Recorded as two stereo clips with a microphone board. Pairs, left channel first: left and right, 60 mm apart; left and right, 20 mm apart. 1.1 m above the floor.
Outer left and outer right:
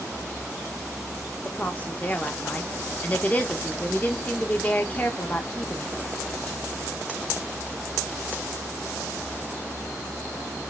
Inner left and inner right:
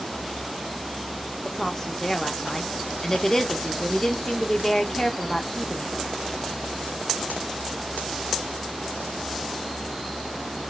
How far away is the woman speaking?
About 1.0 m.